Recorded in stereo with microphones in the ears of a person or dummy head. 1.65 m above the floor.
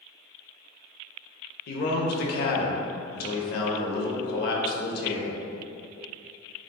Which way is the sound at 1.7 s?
65° left (ahead or behind).